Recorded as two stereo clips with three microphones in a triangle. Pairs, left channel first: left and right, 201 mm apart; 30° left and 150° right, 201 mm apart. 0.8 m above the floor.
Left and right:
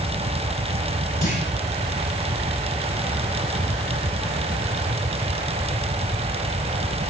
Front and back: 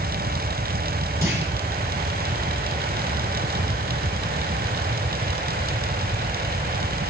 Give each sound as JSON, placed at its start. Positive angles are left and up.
{"t": 1.2, "sound": "a clunk", "azimuth_deg": 135, "distance_m": 9.5}